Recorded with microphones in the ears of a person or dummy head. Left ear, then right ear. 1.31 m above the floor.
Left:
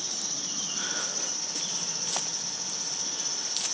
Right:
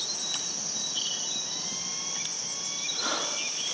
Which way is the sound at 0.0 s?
80° left.